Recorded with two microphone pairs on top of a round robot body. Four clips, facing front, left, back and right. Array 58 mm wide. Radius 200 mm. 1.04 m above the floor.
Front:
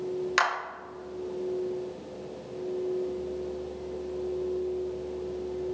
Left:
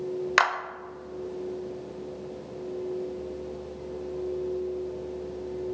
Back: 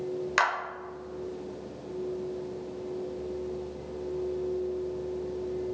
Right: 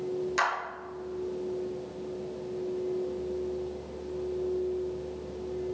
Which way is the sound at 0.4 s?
85° left.